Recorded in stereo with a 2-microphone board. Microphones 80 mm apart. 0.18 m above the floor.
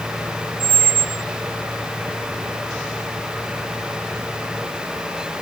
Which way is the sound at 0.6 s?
30° right (ahead or behind).